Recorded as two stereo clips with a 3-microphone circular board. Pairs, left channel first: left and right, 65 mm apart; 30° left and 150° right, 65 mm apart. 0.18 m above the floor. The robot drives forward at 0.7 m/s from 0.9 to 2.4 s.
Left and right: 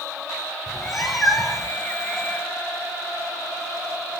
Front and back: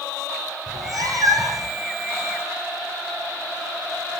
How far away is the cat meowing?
About 3.5 m.